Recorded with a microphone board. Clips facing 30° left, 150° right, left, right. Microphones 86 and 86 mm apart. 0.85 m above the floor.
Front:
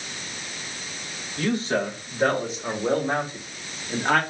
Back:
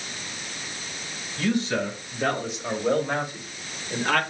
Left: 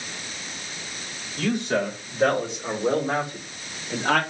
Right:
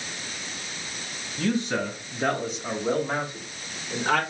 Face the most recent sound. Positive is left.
turn(degrees=95)